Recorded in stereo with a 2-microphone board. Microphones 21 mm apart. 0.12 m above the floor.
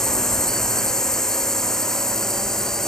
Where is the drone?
20° left (ahead or behind).